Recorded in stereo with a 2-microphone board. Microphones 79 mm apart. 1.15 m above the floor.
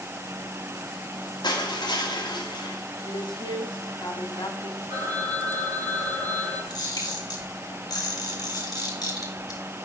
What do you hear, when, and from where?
1.4 s crushing: 70° left (ahead or behind), 2.0 m
3.1 s a woman speaking: 90° left, 1.6 m
4.9 s a phone ringing: 70° right (ahead or behind), 4.5 m
6.7 s a camera shutter: 55° left (ahead or behind), 3 m